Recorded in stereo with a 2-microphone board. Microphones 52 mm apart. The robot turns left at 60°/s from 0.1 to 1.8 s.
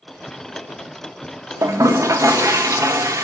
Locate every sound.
1.6 s a toilet flushing: 75° right (ahead or behind), 0.9 m